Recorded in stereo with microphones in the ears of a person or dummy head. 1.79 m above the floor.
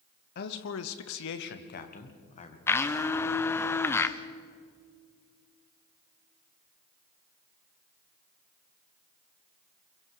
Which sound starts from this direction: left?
A man speaking, at 0.3 s.